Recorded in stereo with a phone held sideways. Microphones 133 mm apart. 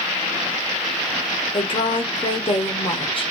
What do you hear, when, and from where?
1.5 s a woman speaking: 40° left (ahead or behind), 0.9 m